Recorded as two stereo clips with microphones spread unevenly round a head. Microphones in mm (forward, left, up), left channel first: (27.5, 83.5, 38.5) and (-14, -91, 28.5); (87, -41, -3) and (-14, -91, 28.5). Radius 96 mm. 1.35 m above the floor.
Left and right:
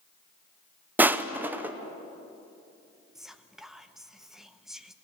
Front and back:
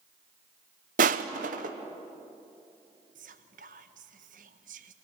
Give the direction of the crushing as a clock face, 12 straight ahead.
6 o'clock.